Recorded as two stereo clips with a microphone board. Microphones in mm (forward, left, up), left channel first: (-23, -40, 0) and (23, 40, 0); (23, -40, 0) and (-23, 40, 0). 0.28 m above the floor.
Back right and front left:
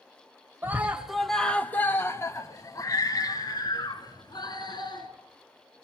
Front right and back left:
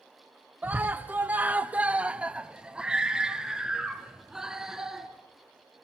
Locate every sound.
0.6 s a scream: 80° left, 1.0 m; by 5.1 s 155° right, 3.5 m